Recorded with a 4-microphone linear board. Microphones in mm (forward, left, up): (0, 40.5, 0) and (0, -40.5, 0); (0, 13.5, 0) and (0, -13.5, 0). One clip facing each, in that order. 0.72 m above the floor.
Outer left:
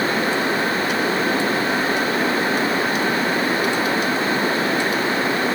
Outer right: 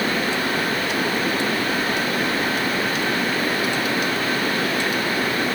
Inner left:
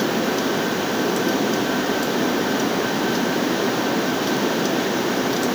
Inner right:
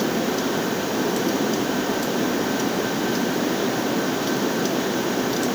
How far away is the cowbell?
I don't hear a cowbell.